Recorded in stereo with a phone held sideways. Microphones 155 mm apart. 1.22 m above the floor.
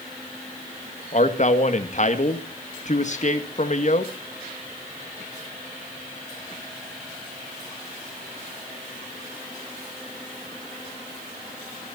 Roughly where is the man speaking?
Left.